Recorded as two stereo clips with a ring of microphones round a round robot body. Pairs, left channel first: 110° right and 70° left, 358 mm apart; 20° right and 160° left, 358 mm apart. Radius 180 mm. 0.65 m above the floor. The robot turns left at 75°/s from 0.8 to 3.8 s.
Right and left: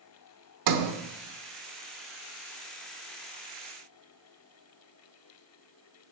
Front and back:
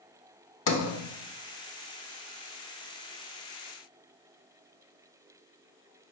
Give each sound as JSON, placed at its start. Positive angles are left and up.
{"t": 0.7, "sound": "a sliding door", "azimuth_deg": 35, "distance_m": 1.0}